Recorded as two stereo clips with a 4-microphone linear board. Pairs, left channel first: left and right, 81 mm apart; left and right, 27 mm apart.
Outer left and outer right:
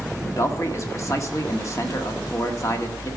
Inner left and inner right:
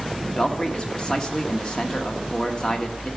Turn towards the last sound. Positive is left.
turn(degrees=40)  # may be behind; listen again after turning